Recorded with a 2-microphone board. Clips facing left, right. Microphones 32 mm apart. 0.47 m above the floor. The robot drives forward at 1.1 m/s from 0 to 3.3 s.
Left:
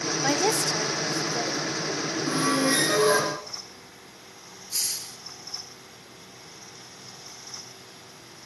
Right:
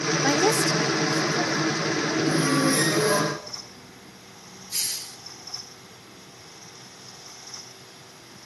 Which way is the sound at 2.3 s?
55° left (ahead or behind).